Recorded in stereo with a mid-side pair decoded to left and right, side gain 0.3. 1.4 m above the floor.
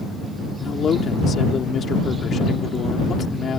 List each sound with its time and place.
0.6 s a man speaking: 65° left